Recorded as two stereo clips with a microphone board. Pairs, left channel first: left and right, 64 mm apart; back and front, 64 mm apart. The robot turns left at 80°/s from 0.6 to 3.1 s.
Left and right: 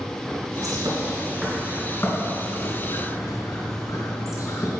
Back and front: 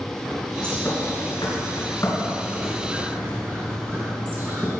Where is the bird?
100° right, 3.5 m; by 4.7 s 60° left, 3.5 m.